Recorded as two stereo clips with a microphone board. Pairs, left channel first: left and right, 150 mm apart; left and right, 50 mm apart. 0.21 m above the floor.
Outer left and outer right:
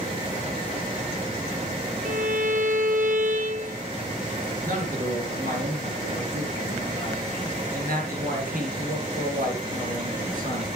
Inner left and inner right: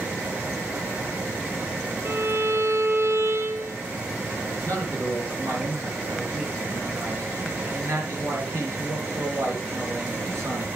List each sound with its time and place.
2.0 s a violin: 60° right (ahead or behind), 1.1 m
4.6 s a man speaking: 70° right (ahead or behind), 4 m